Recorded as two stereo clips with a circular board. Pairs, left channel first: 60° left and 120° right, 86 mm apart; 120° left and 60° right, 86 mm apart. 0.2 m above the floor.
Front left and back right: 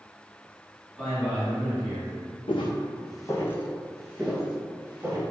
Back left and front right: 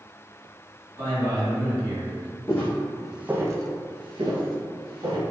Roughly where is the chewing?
No chewing in this recording.